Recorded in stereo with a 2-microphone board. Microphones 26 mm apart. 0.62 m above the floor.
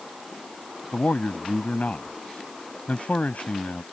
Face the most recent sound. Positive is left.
turn(degrees=80)